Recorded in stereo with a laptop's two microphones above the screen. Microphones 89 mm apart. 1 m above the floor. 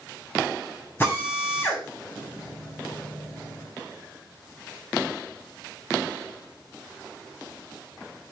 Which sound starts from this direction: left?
A drill, at 1.0 s.